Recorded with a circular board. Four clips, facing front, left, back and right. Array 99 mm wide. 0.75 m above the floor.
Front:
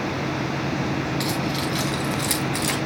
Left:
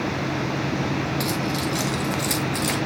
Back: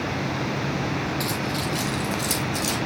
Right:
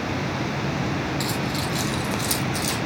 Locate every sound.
1.2 s keys jangling: 5° left, 4.5 m; by 2.8 s 30° left, 4 m